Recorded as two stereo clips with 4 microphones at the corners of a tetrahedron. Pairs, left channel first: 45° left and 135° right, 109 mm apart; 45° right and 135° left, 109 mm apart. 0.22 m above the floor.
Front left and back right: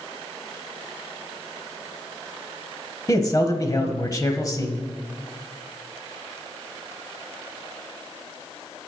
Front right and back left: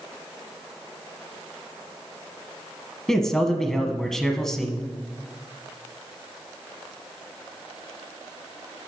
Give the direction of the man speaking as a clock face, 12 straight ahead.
11 o'clock.